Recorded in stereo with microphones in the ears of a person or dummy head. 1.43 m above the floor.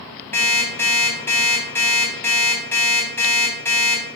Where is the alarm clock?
10° left (ahead or behind), 4 m.